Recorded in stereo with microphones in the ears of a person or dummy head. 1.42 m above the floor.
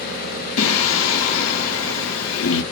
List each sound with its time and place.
0.6 s singing: 75° left (ahead or behind), 0.9 m